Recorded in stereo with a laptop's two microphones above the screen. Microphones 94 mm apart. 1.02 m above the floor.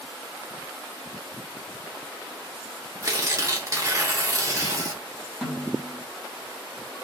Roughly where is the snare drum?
Centre.